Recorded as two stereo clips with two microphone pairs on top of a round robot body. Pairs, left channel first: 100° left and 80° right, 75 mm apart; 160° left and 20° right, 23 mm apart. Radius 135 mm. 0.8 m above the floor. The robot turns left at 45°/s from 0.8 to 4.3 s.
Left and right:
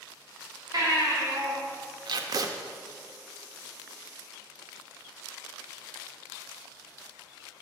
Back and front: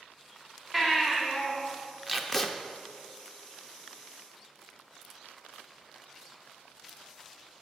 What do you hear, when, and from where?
0.7 s a baby crying: 115° right, 3 m; by 1.5 s 150° right, 3 m
2.1 s tape being pulled: 110° right, 0.5 m; by 2.5 s 130° right, 0.5 m